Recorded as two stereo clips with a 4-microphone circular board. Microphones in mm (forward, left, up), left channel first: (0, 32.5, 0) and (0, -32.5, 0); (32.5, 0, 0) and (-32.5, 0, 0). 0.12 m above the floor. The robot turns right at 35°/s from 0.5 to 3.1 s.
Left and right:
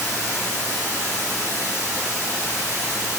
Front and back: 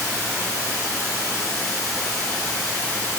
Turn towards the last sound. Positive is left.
turn(degrees=-45)